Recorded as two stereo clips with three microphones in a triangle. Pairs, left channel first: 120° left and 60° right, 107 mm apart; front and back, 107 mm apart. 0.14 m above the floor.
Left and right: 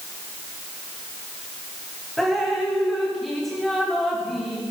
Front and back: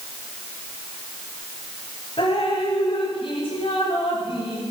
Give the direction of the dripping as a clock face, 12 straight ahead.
11 o'clock.